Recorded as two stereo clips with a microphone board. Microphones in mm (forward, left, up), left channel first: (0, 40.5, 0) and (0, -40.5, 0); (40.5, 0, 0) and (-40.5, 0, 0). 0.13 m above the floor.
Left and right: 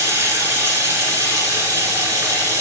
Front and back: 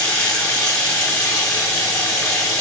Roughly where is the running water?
Right.